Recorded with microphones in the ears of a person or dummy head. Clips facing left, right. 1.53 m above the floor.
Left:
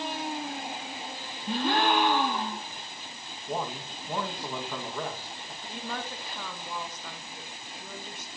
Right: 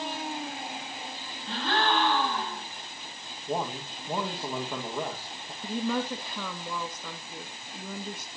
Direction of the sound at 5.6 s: 80° right.